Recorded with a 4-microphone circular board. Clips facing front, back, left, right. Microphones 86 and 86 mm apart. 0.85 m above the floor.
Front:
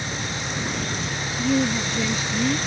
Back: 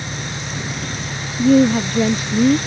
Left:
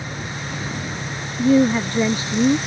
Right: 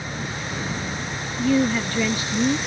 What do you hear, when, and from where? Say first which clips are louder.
0.0 s an engine running: back 1 dB, even; 135° left
1.4 s a woman speaking: back 10 dB, left 5 dB; 150° left